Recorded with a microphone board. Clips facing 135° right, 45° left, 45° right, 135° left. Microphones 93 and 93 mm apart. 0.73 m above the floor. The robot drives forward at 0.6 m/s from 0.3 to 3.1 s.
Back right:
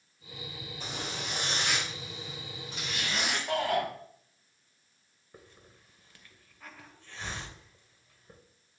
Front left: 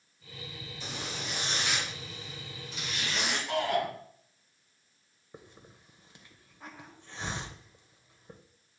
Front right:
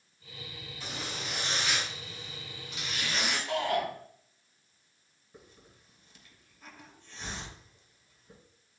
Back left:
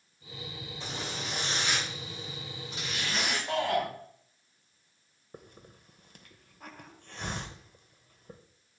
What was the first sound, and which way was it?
A zipper, 165° right.